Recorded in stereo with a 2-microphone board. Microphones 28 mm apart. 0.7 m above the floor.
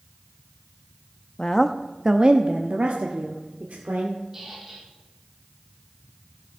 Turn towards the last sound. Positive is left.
turn(degrees=-15)  # may be behind; listen again after turning